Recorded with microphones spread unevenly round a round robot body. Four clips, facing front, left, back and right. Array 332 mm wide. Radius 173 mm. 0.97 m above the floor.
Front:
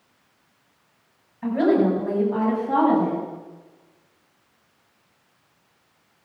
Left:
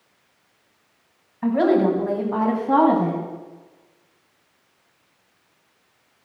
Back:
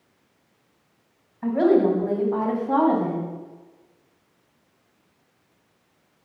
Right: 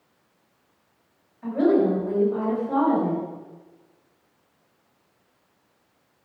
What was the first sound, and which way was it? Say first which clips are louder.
A woman speaking: left 2 dB, back 1 dB; 80° left.